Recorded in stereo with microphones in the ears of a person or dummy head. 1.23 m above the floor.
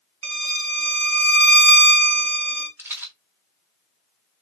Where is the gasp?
I don't hear a gasp.